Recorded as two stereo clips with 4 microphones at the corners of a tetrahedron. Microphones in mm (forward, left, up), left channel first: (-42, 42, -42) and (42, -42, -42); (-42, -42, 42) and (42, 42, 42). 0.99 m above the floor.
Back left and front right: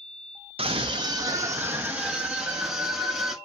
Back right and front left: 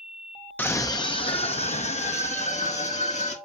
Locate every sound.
0.6 s a scream: 60° right, 0.6 m; by 3.4 s 135° right, 1.8 m